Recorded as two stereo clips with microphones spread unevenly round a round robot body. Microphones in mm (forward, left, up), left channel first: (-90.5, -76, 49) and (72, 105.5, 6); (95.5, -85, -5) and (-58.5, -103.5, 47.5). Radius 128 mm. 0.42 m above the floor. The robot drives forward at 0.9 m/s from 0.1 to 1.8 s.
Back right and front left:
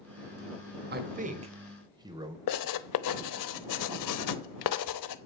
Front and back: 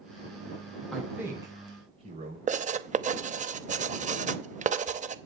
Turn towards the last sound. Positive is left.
turn(degrees=-125)